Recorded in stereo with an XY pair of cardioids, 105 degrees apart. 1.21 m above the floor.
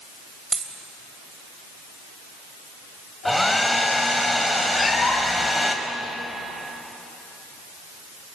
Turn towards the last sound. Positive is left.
turn(degrees=30)